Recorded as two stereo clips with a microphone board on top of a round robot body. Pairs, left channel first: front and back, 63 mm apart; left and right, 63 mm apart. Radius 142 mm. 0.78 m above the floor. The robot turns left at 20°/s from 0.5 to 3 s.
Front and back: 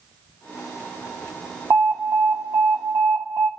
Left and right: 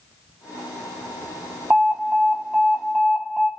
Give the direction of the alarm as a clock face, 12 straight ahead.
5 o'clock.